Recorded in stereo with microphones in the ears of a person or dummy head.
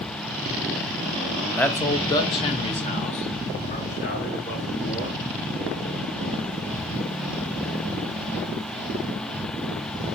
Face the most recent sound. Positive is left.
turn(degrees=45)  # may be behind; listen again after turning